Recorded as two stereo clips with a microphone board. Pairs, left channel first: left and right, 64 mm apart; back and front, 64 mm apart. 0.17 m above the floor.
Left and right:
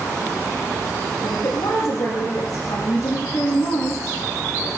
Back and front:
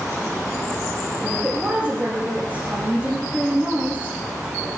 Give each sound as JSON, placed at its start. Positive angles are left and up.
{"t": 1.2, "sound": "a woman speaking", "azimuth_deg": 70, "distance_m": 7.5}